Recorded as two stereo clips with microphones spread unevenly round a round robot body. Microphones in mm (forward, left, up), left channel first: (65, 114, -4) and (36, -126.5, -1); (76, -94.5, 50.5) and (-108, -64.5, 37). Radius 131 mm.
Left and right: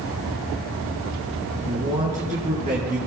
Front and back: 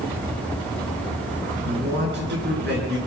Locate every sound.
1.6 s a man speaking: 165° right, 9 m